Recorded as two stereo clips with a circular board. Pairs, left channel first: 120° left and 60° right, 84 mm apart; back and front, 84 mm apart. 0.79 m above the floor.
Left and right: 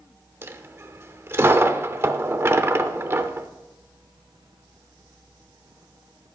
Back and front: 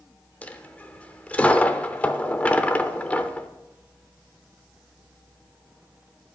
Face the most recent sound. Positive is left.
turn(degrees=-110)